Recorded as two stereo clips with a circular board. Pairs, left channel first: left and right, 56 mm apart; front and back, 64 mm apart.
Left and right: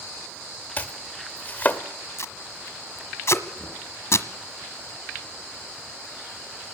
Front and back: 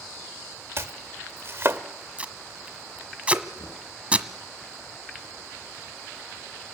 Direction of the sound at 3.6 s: 20° left.